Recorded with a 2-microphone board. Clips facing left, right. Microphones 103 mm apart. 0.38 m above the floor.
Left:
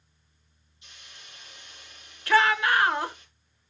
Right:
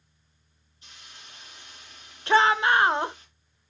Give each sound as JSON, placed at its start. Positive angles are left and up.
{"t": 0.8, "sound": "a hiss", "side_deg": -40, "distance_m": 5.0}
{"t": 2.3, "sound": "a shout", "side_deg": -25, "distance_m": 1.0}